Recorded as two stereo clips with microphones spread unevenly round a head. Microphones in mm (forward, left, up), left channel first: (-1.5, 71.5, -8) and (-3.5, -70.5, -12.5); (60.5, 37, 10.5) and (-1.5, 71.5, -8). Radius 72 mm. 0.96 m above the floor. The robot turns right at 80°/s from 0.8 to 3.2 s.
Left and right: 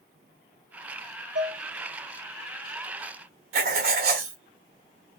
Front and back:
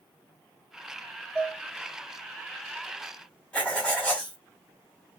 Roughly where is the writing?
Right.